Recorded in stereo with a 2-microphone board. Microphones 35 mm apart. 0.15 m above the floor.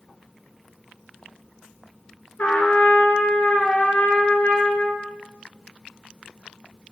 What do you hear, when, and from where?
2.4 s a trumpet: 50° left (ahead or behind), 0.7 m